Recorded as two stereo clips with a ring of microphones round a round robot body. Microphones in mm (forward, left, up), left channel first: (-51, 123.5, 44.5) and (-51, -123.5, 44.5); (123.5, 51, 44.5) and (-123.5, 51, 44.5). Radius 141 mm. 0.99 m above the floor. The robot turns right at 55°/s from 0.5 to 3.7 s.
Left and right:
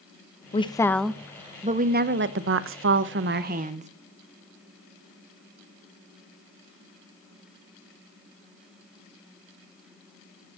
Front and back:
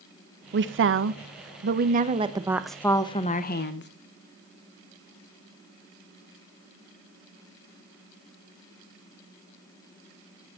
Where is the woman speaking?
150° left, 1.2 m; by 3.9 s 35° right, 1.2 m.